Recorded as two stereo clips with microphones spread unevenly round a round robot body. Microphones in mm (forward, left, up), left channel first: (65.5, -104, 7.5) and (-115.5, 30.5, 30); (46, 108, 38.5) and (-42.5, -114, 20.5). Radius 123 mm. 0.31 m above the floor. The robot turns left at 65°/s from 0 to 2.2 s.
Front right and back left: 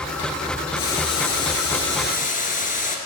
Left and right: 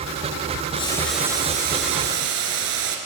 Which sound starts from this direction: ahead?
Boiling, at 0.7 s.